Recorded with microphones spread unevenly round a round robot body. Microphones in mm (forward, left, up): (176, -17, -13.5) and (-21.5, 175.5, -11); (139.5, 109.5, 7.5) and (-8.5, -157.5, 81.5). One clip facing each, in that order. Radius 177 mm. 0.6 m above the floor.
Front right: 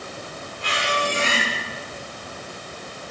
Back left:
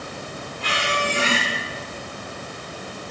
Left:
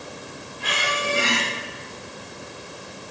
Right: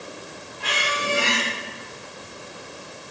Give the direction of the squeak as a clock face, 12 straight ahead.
5 o'clock.